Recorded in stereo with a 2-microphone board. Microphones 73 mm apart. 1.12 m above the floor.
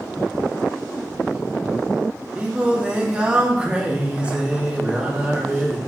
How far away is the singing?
About 1.6 m.